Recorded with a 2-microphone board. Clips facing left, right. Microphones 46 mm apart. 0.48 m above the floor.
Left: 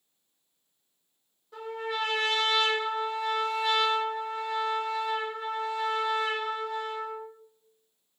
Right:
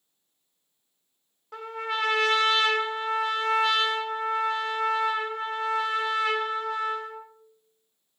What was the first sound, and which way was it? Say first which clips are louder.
A trumpet: right 2 dB; 80° right.